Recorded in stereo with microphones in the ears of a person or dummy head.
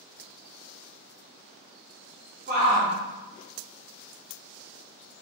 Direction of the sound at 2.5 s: 55° right (ahead or behind).